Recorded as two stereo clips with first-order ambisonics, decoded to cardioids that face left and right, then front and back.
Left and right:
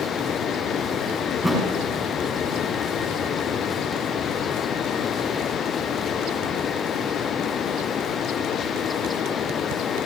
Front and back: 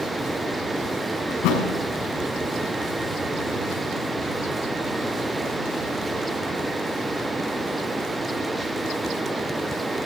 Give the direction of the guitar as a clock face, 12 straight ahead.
I don't hear a guitar.